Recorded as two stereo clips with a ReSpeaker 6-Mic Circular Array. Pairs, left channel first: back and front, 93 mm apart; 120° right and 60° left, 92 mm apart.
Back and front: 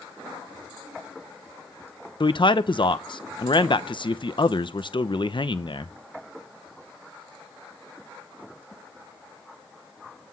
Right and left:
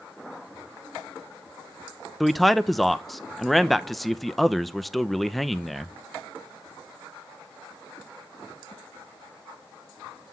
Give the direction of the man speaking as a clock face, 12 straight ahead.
7 o'clock.